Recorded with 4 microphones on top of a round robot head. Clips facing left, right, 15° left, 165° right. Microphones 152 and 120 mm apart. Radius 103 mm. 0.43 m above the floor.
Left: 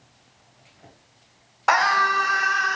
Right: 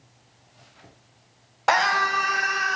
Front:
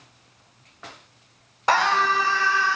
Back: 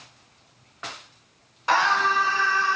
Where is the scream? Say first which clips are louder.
Left 1 dB, front 1 dB; 30° right, 1.7 m; by 2.8 s 10° right, 2 m.